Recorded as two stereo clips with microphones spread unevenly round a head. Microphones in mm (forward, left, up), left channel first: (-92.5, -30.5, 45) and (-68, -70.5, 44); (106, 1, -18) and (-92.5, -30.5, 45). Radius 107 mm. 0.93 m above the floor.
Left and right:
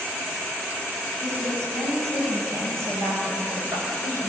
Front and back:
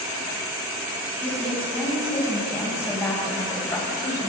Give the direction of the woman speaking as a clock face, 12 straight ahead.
2 o'clock.